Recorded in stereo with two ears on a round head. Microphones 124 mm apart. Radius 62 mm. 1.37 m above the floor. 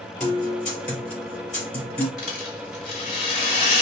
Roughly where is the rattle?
Left.